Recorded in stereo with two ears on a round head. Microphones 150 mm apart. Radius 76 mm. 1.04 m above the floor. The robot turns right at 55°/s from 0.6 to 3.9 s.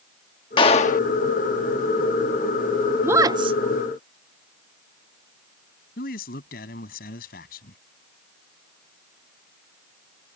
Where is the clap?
30° left (ahead or behind); by 1.0 s 55° left (ahead or behind).